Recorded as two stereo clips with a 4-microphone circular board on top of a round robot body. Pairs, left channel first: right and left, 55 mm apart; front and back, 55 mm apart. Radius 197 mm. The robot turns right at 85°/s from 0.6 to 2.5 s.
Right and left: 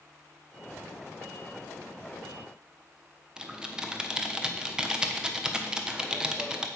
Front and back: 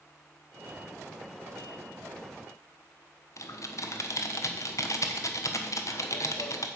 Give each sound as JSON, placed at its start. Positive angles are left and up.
{"t": 3.4, "sound": "typing on a keyboard", "azimuth_deg": 15, "distance_m": 1.2}